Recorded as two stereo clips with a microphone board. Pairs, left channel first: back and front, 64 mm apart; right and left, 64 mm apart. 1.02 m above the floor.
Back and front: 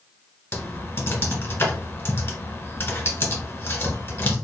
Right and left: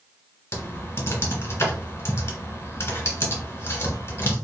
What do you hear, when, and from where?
0.5 s typing on a keyboard: 135° right, 1.9 m